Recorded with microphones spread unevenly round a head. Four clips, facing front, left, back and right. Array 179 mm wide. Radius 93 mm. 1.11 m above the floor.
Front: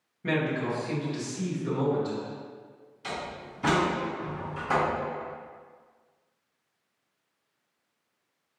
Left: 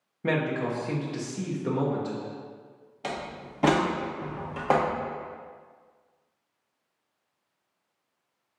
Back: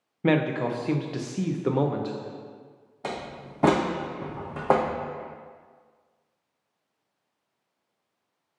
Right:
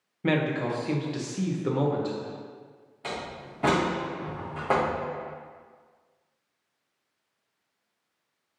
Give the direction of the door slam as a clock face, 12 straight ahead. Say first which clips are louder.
Left 1 dB, back 2 dB; 7 o'clock.